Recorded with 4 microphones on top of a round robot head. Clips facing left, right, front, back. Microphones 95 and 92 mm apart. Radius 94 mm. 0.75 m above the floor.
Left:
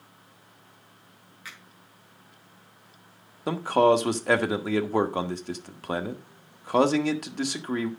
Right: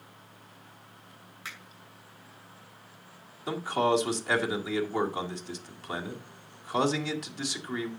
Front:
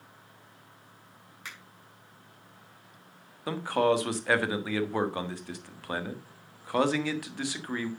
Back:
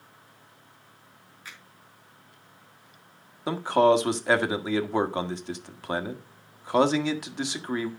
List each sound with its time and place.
1.4 s a finger snap: 25° right, 6 m
3.5 s a man speaking: 115° left, 1.6 m